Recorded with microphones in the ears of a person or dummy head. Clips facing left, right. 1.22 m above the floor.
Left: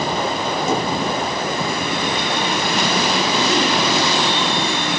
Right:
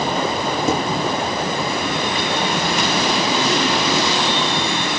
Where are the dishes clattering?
80° right, 4.5 m.